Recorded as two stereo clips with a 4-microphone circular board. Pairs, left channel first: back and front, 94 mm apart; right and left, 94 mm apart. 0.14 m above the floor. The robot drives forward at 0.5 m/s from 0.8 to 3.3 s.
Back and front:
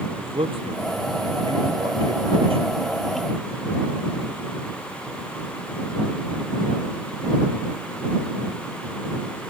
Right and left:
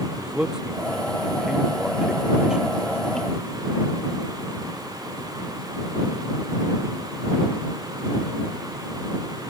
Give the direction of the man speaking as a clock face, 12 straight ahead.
12 o'clock.